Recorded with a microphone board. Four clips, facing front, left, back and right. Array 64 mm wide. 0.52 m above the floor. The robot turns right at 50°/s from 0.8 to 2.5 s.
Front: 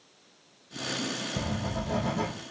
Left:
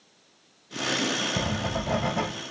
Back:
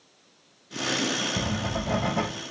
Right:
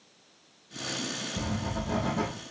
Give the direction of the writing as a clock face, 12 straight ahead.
9 o'clock.